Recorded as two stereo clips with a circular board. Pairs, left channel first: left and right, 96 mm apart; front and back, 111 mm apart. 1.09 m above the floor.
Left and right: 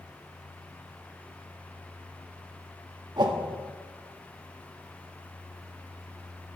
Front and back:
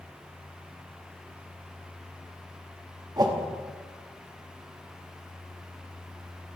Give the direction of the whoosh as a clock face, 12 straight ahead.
4 o'clock.